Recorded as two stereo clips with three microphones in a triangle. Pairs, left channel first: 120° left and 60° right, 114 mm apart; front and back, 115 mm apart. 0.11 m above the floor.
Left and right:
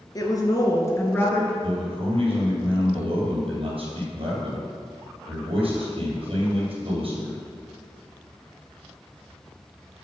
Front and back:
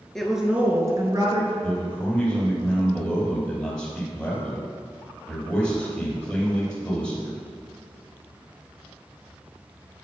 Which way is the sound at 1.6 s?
75° right.